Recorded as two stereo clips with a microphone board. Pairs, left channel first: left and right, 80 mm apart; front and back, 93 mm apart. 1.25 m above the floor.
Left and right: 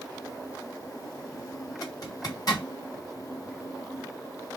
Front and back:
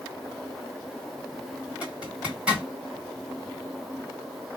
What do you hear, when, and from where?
1.8 s a zipper: 105° left, 1.6 m